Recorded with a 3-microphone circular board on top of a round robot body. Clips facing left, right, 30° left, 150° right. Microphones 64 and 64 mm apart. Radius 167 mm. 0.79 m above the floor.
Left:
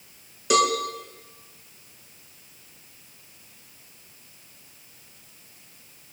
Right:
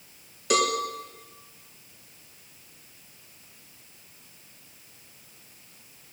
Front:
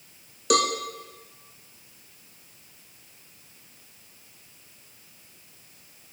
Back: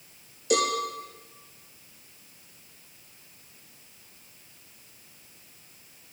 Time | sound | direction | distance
0.5 | a cowbell | 5° left | 2 m